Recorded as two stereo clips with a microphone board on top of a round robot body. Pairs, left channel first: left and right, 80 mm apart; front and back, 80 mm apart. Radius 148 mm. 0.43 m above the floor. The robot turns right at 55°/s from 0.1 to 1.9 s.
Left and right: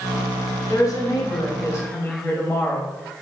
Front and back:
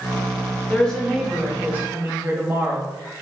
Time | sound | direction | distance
0.7 | a woman speaking | 70° left | 1.7 m